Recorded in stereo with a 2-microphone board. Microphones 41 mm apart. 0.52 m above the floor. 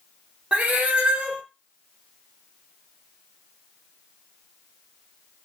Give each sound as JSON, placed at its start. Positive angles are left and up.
{"t": 0.5, "sound": "a cat meowing", "side_deg": -30, "distance_m": 0.5}